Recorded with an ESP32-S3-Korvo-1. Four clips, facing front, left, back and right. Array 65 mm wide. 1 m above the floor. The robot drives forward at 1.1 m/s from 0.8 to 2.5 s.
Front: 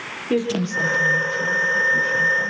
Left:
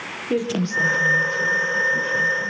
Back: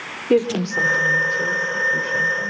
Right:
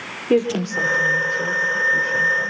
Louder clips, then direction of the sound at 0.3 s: Right 4 dB, back 4 dB; 140° right.